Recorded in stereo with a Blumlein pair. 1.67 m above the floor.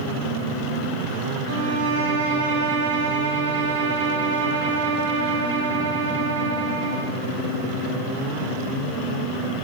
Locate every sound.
1.5 s a violin: 60° right, 2 m